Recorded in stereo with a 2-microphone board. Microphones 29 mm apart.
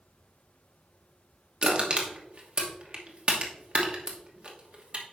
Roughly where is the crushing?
Right.